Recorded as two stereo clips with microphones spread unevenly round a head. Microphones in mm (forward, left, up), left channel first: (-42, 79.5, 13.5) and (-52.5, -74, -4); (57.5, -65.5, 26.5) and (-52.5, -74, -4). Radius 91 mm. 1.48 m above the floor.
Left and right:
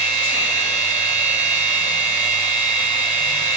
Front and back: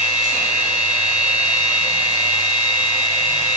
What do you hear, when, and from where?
0.0 s a machine running: 55° left, 1.4 m